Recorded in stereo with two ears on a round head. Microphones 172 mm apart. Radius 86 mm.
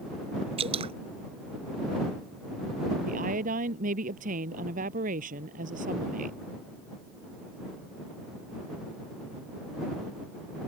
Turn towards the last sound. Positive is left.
turn(degrees=-45)  # may be behind; listen again after turning